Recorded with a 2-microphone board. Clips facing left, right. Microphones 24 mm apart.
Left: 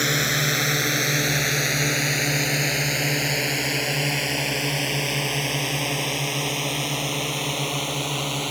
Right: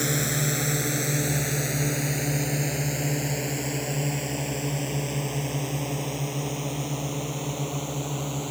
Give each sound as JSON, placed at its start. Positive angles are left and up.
{"t": 0.0, "sound": "a drone", "side_deg": 40}